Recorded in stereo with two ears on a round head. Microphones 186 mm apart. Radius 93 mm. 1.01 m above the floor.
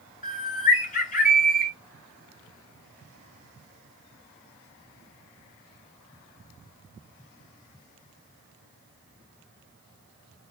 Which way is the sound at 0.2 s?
40° left (ahead or behind).